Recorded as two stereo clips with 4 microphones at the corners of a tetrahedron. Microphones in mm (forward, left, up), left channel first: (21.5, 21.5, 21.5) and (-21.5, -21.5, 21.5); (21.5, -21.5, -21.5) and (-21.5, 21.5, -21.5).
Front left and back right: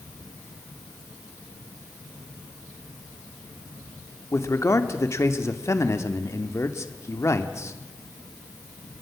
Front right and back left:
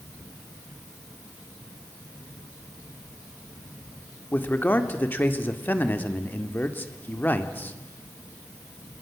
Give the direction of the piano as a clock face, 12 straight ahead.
I don't hear a piano.